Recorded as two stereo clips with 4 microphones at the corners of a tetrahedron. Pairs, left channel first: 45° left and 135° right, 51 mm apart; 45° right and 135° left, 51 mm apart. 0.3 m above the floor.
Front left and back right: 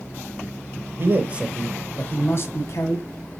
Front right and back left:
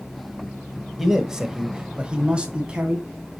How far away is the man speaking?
About 1.2 m.